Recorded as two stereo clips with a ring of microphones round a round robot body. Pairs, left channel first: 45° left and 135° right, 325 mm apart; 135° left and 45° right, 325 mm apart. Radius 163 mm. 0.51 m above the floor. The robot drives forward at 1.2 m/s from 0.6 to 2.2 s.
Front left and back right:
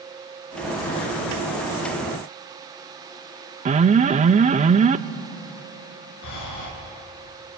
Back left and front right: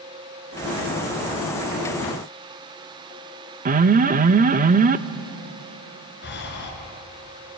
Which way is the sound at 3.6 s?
85° right.